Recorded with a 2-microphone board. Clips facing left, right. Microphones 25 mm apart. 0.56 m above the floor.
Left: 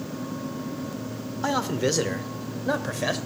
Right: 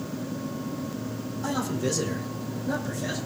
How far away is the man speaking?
About 1.4 m.